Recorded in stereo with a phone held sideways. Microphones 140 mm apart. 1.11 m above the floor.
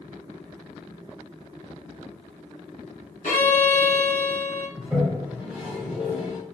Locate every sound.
3.2 s a violin: 65° left (ahead or behind), 0.9 m
4.8 s a toilet flushing: 10° right (ahead or behind), 1.3 m